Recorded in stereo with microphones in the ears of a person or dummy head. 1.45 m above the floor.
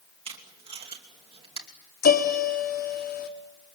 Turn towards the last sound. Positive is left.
turn(degrees=55)  # may be behind; listen again after turning